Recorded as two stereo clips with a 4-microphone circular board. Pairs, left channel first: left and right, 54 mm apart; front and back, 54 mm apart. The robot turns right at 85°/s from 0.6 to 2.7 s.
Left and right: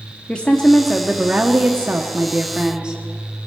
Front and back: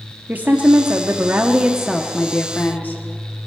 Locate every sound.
0.3 s a woman speaking: 150° left, 0.8 m; by 3.0 s 30° right, 0.8 m